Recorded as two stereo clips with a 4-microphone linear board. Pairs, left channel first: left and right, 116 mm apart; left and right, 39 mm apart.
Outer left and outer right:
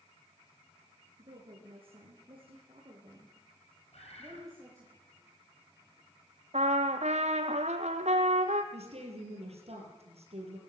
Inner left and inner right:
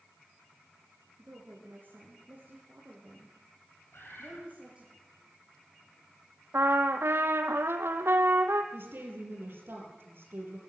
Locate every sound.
1.2 s a woman speaking: 60° right (ahead or behind), 5 m; by 4.9 s 20° right (ahead or behind), 4.5 m
3.9 s a bird: 65° left (ahead or behind), 6.5 m
6.5 s a trumpet: 75° right (ahead or behind), 1.6 m
8.7 s a woman speaking: 65° right (ahead or behind), 6.5 m